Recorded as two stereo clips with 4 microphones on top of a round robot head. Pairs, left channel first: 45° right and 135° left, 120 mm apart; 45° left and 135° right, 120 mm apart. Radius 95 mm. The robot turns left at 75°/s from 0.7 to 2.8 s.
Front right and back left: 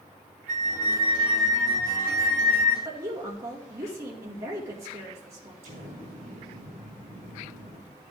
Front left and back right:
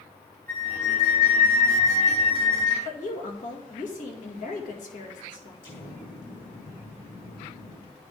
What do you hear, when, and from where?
0.5 s a flute: 120° left, 1.2 m; by 2.8 s 30° right, 1.2 m
2.9 s a woman speaking: 65° left, 2 m
5.6 s an explosion: 100° left, 3.5 m